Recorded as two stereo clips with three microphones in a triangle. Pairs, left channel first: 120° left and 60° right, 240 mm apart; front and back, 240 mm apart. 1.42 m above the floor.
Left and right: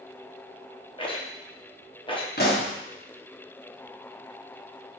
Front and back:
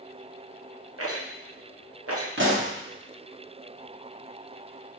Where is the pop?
160° left, 0.9 m.